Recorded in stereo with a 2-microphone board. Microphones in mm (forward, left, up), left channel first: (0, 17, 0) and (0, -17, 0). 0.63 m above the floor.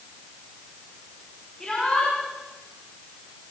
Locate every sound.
1.6 s a shout: 15° left (ahead or behind), 7 m